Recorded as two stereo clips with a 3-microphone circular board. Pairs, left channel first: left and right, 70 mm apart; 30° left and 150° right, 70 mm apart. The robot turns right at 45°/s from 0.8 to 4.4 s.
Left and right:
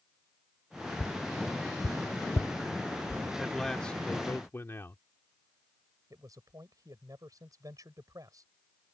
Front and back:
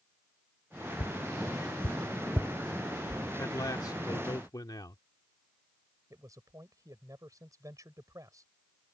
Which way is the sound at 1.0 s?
40° left.